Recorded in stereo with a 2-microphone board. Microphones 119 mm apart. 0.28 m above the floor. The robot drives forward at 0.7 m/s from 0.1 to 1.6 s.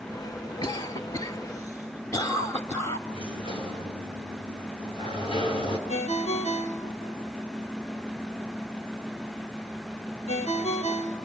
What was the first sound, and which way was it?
A cough, 35° left (ahead or behind).